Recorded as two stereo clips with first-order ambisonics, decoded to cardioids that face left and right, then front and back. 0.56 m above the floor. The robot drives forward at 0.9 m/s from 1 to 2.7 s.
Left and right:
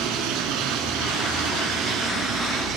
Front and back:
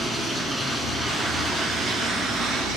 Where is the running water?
100° right, 1.9 m; by 2.8 s 135° right, 2.5 m.